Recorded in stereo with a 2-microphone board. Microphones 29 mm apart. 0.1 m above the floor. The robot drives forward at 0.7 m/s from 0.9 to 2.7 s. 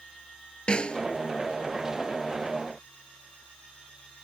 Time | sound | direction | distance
0.7 | a snare drum | 35° left (ahead or behind) | ?